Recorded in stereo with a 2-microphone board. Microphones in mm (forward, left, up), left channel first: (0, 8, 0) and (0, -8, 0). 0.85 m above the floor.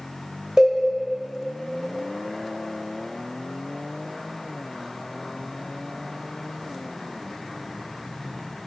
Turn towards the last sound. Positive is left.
turn(degrees=-35)  # may be behind; listen again after turning